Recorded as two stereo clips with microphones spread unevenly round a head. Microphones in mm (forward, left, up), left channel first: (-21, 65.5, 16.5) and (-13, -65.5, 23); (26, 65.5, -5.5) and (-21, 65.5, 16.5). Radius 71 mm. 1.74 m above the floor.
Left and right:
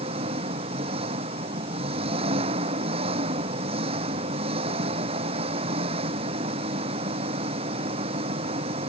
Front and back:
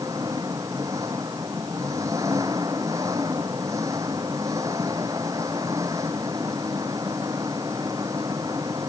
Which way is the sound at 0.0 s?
135° right.